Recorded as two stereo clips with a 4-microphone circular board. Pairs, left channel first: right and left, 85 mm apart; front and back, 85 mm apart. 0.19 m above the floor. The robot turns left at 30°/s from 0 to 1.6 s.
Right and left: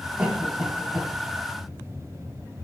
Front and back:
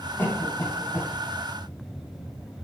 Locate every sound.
0.2 s a cough: 30° left, 1.6 m; by 1.1 s 5° left, 1.6 m